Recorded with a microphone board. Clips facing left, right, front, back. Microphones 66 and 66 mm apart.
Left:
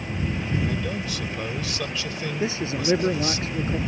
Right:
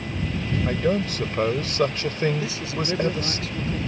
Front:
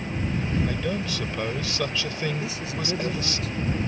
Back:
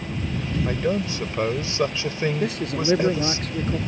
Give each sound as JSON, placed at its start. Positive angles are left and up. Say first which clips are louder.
{"t": 0.7, "sound": "a man speaking", "louder": "right 6 dB, back 4 dB", "azimuth_deg": -125}
{"t": 2.4, "sound": "a man speaking", "louder": "left 2 dB, back 6 dB", "azimuth_deg": 150}